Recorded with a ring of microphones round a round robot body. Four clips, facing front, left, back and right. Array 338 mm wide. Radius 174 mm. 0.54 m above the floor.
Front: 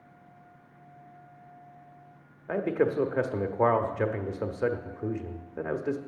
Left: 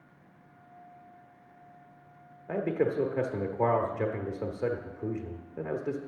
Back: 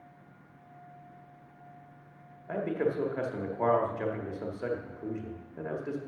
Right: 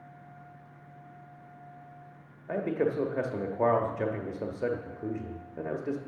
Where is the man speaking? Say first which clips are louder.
Even, front 4 dB; straight ahead, 0.9 m.